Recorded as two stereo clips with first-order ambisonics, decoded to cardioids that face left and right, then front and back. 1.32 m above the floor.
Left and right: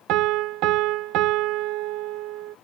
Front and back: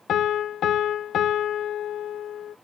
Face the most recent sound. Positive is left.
turn(degrees=-55)